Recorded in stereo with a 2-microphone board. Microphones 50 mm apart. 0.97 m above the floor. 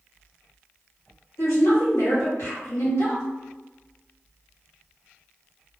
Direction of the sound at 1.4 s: 65° left (ahead or behind).